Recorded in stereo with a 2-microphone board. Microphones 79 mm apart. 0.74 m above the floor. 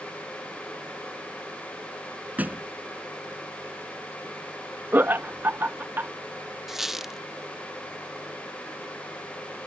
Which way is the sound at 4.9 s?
25° right (ahead or behind).